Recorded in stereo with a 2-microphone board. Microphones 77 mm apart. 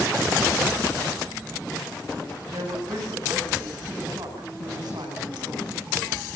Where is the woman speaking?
65° right (ahead or behind), 10 m.